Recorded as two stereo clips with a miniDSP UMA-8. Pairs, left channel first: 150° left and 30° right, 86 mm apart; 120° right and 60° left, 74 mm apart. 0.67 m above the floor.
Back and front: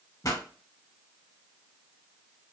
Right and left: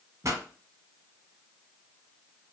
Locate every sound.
0.2 s a pop: 105° left, 1.0 m